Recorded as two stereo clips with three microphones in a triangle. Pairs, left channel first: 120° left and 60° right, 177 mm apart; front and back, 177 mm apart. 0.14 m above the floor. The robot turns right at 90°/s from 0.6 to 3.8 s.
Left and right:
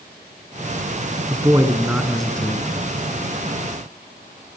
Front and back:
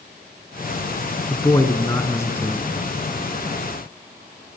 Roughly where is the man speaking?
Ahead right.